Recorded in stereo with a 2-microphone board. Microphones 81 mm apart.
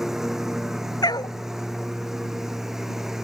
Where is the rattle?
I don't hear a rattle.